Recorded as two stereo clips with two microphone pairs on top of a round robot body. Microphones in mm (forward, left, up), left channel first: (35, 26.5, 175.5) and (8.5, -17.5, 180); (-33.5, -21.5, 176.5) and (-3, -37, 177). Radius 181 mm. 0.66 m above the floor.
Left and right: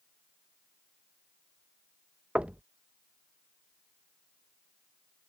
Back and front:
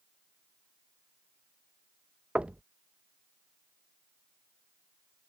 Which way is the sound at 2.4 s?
60° right.